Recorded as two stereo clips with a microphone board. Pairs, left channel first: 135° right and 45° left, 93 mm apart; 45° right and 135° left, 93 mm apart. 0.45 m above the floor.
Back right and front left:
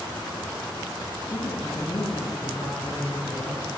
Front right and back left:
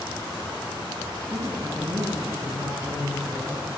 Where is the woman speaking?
175° right, 7 m.